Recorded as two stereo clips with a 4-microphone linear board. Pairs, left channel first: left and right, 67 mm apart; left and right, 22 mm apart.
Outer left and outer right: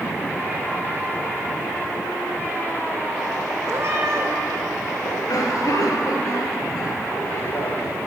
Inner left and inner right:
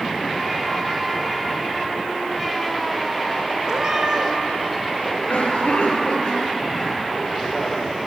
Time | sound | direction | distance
3.7 | a cat meowing | 40° right (ahead or behind) | 6.5 m
5.0 | a cough | 60° left (ahead or behind) | 6.5 m